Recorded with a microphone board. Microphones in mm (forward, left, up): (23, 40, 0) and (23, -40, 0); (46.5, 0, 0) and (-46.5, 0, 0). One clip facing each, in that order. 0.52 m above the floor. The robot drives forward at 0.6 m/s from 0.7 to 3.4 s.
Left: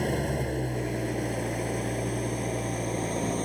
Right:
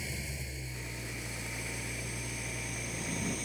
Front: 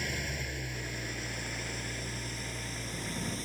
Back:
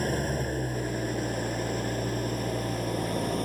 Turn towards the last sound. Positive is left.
turn(degrees=135)